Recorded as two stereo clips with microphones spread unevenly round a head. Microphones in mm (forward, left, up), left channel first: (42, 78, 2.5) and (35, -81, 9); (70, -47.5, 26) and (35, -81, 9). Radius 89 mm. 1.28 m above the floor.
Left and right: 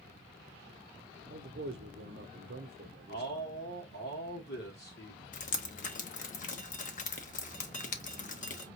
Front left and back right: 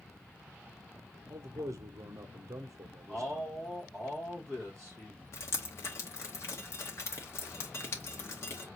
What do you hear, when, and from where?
1.3 s a man speaking: 130° right, 0.6 m
3.1 s a man speaking: 125° left, 2 m
5.3 s dripping: 50° left, 0.9 m